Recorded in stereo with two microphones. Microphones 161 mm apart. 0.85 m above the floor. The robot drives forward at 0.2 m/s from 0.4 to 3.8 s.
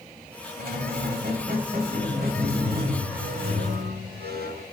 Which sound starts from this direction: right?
A squeak, at 0.6 s.